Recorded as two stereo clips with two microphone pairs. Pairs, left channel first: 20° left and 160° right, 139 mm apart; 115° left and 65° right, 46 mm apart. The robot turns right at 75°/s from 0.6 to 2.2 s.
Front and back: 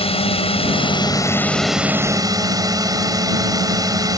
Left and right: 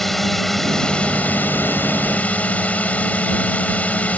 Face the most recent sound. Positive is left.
turn(degrees=150)